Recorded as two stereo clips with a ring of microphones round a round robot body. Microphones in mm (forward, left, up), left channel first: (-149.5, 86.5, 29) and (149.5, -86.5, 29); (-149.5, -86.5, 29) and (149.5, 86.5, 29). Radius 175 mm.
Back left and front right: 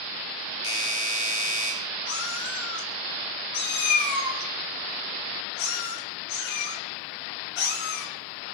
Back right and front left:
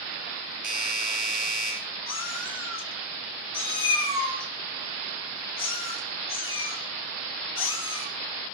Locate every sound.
0.6 s a doorbell: 95° left, 9 m
2.1 s a cat meowing: 155° left, 3 m